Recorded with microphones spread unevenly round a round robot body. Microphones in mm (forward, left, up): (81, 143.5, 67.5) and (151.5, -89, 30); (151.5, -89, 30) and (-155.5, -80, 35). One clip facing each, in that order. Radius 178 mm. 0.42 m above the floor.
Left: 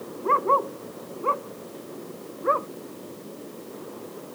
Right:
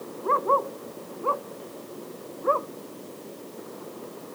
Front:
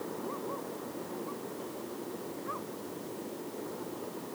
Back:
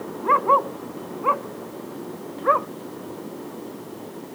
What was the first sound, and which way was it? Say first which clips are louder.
A dog barking: left 1 dB, back 13 dB; 175° left.